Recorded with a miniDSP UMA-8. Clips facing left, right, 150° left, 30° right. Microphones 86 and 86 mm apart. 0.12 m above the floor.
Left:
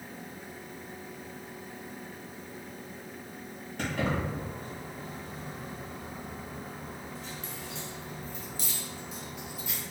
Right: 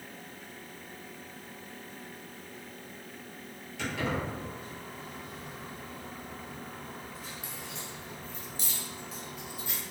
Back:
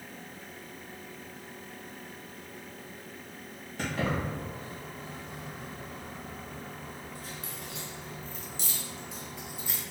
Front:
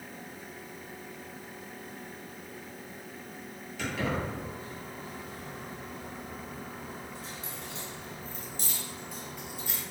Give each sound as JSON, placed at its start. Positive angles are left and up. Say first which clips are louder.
{"t": 3.8, "sound": "keys jangling", "louder": "left 2 dB, back 1 dB", "azimuth_deg": 115, "distance_m": 1.8}